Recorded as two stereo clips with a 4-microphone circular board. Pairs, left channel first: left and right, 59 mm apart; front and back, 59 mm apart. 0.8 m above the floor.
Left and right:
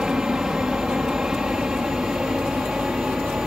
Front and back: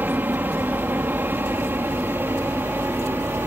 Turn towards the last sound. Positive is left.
turn(degrees=-165)